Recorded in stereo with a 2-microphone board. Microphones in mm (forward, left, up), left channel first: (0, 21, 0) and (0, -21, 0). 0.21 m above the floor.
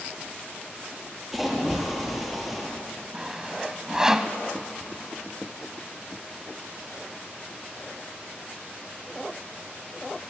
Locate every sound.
1.3 s a splash: 5° right (ahead or behind), 5.5 m
3.1 s sawing: 15° right (ahead or behind), 1.2 m